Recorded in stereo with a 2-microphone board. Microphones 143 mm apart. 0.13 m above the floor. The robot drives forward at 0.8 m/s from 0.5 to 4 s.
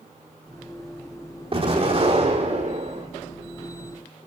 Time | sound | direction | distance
1.5 | an explosion | 40° right (ahead or behind) | 4 m